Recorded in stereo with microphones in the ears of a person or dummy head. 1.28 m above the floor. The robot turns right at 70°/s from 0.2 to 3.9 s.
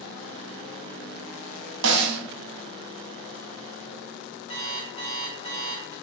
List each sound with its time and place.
1.8 s a snare drum: 60° right (ahead or behind), 0.6 m; by 2.2 s 45° right (ahead or behind), 0.6 m
4.5 s an alarm clock: 35° left (ahead or behind), 1.1 m